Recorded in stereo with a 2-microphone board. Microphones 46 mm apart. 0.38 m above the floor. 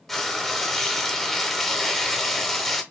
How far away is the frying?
About 0.8 m.